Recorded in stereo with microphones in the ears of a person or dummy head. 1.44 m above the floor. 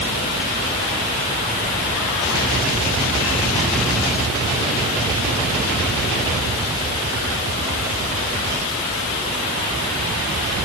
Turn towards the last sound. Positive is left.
No sound to turn to.